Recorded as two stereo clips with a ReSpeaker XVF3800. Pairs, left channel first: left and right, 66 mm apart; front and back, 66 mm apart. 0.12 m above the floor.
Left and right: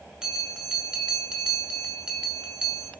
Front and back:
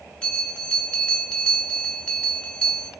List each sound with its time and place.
0.2 s a bell: 40° right, 0.8 m